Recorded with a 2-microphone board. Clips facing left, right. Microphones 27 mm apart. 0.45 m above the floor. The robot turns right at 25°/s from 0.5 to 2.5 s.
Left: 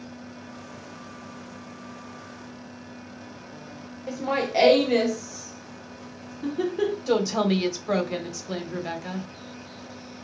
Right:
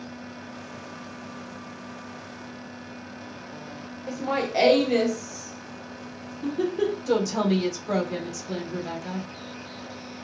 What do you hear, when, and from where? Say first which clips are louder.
4.1 s laughter: left 1 dB; 10° left (ahead or behind), 0.8 m
7.1 s a woman speaking: left 1 dB; 30° left (ahead or behind), 1.3 m